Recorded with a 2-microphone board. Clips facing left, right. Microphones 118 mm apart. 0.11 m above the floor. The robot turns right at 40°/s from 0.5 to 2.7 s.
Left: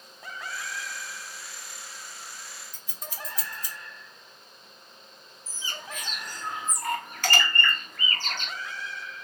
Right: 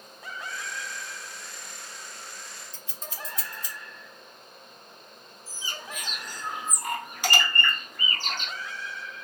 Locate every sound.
2.7 s scissors: 25° right (ahead or behind), 2.0 m
5.5 s a bird: 15° right (ahead or behind), 0.8 m